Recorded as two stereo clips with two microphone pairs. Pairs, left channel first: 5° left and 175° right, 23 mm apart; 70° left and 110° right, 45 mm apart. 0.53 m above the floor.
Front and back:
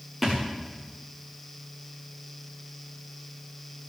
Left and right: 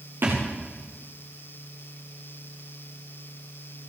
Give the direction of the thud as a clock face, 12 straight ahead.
3 o'clock.